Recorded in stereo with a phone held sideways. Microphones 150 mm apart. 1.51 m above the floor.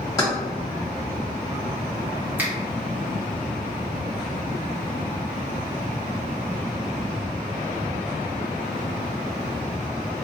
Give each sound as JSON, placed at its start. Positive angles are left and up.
{"t": 0.2, "sound": "keys jangling", "side_deg": 20, "distance_m": 1.6}
{"t": 2.4, "sound": "a finger snap", "side_deg": -10, "distance_m": 1.1}